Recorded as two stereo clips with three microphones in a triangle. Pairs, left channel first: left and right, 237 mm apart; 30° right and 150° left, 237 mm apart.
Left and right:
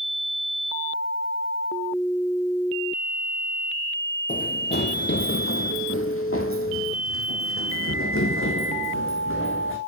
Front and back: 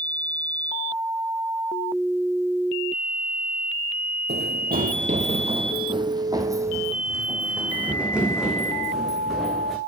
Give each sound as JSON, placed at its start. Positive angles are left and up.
{"t": 4.3, "sound": "running footsteps", "azimuth_deg": 130, "distance_m": 1.0}